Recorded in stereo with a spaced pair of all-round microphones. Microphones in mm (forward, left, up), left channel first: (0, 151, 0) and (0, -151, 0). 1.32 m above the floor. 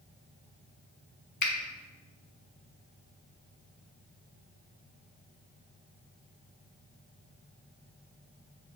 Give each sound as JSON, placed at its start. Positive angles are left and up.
{"t": 1.4, "sound": "a finger snap", "side_deg": 70, "distance_m": 0.5}